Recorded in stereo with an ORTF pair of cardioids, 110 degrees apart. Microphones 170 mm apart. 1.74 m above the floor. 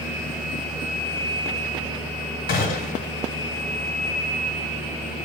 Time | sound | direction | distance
2.5 | a gunshot | 55° left | 1.6 m